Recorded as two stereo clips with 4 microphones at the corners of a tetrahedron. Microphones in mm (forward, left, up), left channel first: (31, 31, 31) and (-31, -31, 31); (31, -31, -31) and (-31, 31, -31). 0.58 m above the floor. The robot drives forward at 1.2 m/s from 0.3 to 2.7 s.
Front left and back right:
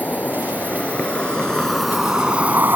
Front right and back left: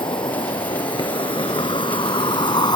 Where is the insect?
25° right; by 2.8 s 70° right.